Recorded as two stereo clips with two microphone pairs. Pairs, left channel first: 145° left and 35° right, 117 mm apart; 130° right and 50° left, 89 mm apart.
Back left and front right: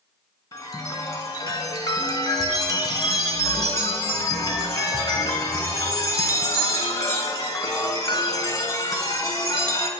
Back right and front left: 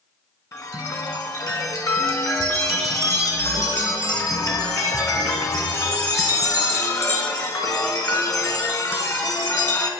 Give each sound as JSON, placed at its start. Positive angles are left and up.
{"t": 0.5, "sound": "a chime", "azimuth_deg": -170, "distance_m": 1.0}